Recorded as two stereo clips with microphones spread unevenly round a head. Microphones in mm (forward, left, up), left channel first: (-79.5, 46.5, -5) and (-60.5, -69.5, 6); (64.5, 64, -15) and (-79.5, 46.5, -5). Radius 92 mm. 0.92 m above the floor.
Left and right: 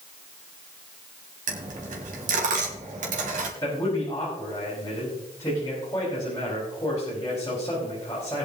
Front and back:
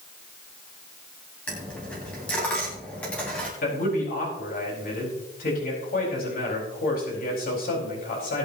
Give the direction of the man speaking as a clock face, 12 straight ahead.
11 o'clock.